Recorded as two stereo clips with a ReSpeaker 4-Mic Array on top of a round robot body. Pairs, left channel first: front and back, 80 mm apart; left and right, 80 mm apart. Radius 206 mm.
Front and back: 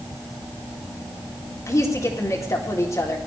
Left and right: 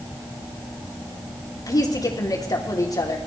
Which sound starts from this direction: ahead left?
A woman speaking, at 1.7 s.